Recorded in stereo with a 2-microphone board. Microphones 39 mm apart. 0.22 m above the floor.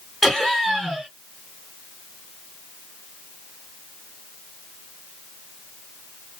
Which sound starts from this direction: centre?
Laughter, at 0.2 s.